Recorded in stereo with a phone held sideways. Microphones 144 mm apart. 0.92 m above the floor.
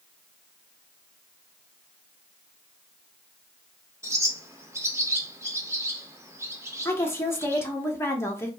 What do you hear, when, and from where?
4.0 s a bird: 20° right (ahead or behind), 0.5 m
6.8 s a woman speaking: 15° left (ahead or behind), 0.6 m